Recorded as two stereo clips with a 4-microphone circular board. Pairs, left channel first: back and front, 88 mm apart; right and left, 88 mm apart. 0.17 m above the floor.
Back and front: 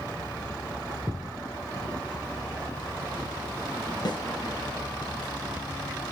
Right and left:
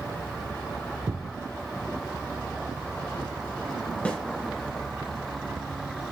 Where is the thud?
45° left, 1.2 m.